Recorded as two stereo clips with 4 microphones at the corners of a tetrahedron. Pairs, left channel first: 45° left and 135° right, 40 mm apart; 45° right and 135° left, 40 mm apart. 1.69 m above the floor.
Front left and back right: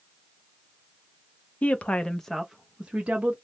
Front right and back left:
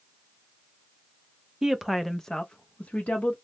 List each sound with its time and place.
1.6 s a woman speaking: 65° left, 0.6 m; by 3.4 s 90° right, 0.8 m